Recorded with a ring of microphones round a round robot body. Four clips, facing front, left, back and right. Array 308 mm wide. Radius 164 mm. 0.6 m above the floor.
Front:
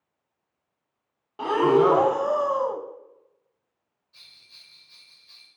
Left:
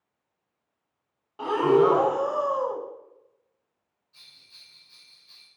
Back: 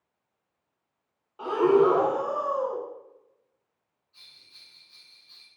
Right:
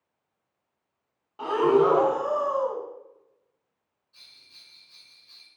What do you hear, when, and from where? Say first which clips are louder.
1.4 s breathing: left 1 dB, front 1 dB; 5° left, 1.1 m
4.1 s a bell: even, front 1 dB; 5° right, 3 m